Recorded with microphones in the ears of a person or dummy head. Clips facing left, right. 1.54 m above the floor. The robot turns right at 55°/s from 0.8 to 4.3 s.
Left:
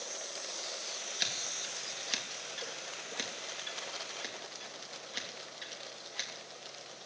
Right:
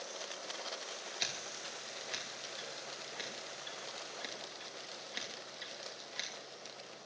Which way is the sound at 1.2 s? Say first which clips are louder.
Left 1 dB; 10° left (ahead or behind).